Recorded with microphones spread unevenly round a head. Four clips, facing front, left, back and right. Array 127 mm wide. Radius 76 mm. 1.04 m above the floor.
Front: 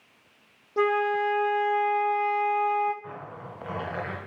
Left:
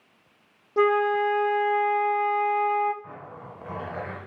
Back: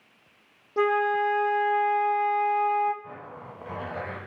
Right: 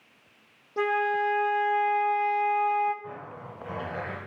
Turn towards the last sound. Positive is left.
turn(degrees=60)